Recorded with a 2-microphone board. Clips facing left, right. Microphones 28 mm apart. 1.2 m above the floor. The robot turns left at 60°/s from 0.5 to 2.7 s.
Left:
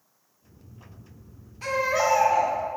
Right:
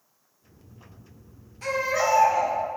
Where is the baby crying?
165° left, 2.5 m; by 2.5 s 110° left, 2.5 m.